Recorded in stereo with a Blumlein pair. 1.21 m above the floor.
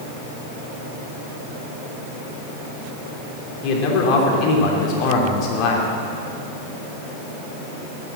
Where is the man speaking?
40° left, 3 m.